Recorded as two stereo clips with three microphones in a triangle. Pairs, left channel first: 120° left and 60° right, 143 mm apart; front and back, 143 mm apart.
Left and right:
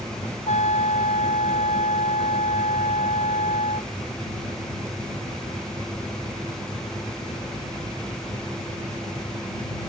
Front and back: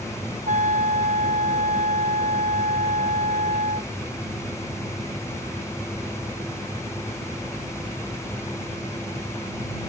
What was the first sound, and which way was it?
A trumpet, 155° left.